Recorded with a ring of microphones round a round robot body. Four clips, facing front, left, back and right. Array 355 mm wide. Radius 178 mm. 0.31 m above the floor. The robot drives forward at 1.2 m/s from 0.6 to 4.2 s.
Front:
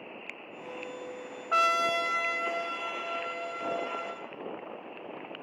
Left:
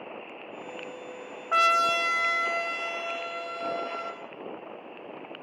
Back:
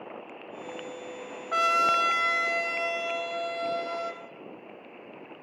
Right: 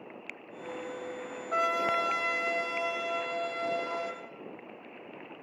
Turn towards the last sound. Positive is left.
turn(degrees=165)